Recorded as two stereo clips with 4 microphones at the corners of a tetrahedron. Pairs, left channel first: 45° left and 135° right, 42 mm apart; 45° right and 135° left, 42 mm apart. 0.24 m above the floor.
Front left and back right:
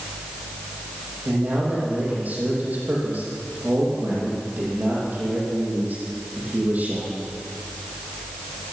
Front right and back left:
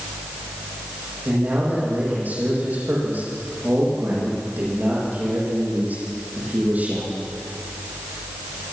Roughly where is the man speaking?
Behind.